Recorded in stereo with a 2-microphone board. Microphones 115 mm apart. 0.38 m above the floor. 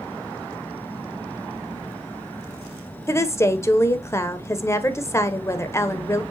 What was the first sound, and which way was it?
A woman speaking, 25° left (ahead or behind).